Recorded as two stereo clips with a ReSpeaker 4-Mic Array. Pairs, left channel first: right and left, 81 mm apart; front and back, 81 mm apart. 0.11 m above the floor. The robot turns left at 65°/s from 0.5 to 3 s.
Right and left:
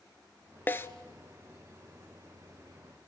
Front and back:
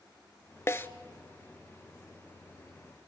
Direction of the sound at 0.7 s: 35° right.